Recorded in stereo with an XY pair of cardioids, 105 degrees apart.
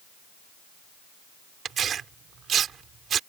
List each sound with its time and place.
1.6 s tearing paper: 55° right